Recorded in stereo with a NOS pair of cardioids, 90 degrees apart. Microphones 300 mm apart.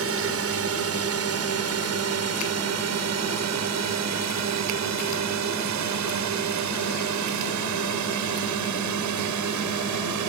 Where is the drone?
50° right; by 10.3 s 80° right.